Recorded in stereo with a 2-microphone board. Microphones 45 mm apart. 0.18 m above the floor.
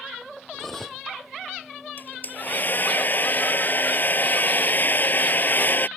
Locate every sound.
0.5 s cutlery clinking: 10° left (ahead or behind)
2.0 s a hair dryer: 45° left (ahead or behind)